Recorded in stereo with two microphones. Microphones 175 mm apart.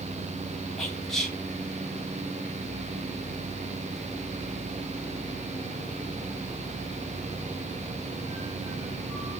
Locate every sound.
0.8 s whispering: centre (ahead or behind), 4 m